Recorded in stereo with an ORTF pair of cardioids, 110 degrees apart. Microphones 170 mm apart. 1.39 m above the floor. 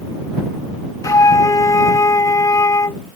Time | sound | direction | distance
1.0 | a flute | 20° left | ?